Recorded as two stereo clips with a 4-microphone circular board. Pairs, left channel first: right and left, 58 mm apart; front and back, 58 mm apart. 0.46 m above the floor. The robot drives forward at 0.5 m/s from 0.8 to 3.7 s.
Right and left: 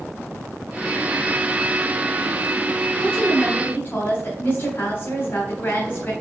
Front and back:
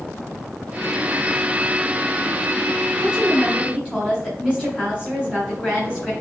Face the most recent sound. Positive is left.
turn(degrees=-120)